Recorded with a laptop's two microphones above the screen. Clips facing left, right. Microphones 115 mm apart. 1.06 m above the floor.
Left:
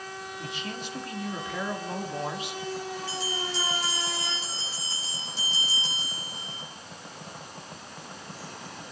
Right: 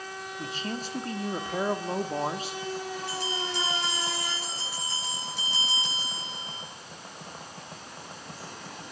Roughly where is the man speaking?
Right.